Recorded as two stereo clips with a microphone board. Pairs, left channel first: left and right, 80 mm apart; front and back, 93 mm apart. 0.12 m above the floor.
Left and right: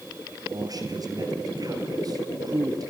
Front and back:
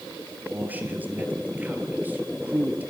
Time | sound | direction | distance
0.5 | a man speaking | 110° right | 3 m